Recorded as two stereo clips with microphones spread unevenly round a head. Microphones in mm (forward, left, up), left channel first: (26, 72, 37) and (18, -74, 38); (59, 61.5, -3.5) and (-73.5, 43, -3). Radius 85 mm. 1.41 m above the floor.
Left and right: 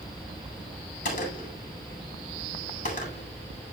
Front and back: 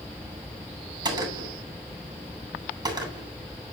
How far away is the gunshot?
About 8.5 m.